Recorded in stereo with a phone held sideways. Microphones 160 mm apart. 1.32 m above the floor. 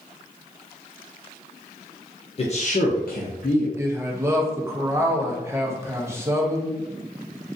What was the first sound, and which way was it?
A man speaking, 40° left (ahead or behind).